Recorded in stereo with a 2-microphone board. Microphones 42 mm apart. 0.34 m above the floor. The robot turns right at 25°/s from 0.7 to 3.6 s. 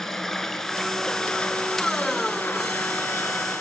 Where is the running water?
10° left, 2 m; by 3.6 s 80° left, 2 m.